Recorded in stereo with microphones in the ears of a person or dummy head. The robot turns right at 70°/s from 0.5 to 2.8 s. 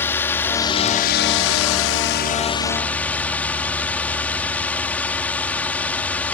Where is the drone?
10° left; by 6.3 s 170° left.